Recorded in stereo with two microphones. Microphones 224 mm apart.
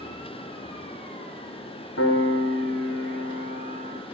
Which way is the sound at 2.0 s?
65° left (ahead or behind).